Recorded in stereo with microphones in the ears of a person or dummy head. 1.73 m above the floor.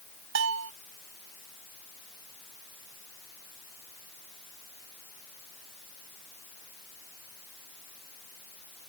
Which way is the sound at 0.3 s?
85° right.